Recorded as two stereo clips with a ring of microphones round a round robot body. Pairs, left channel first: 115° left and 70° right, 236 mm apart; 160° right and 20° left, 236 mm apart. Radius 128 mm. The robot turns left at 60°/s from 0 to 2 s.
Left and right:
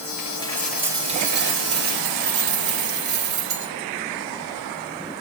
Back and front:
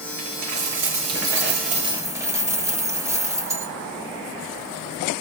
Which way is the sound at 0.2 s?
55° left.